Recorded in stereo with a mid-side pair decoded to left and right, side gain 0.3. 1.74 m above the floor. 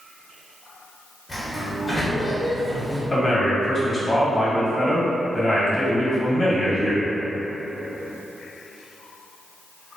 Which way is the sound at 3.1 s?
30° left.